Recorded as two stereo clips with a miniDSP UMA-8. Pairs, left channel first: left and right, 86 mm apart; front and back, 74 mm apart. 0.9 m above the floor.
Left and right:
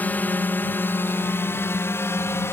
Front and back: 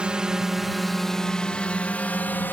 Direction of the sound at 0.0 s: 125° left.